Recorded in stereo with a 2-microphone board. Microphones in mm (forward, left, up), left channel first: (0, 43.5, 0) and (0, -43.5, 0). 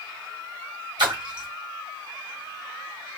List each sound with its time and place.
1.0 s a splash: 60° right (ahead or behind), 1.4 m